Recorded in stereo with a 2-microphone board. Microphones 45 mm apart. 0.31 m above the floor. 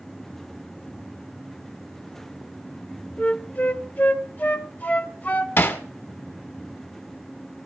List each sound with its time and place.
3.2 s a flute: 35° left (ahead or behind), 0.9 m
5.6 s hammering: 60° left (ahead or behind), 1.2 m